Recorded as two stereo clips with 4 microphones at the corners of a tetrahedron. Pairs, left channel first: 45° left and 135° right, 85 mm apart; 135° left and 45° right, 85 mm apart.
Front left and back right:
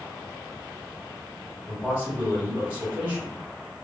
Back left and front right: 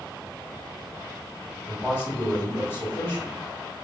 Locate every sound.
1.7 s a man speaking: 165° left, 1.7 m